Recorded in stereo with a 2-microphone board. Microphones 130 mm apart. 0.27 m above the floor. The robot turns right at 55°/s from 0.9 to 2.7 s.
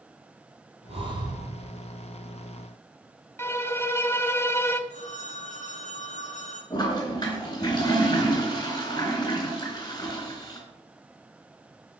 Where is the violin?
20° left (ahead or behind), 0.8 m.